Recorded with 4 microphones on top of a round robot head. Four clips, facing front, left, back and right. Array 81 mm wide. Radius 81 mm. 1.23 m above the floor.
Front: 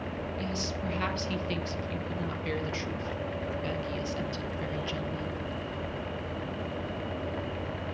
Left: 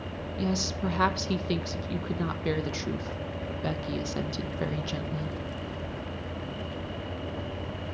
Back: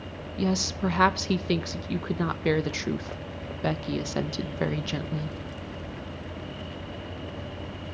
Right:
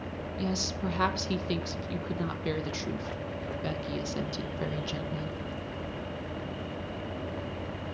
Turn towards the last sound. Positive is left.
turn(degrees=175)